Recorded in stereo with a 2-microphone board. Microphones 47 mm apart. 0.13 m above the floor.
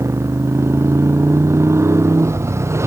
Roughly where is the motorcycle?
Right.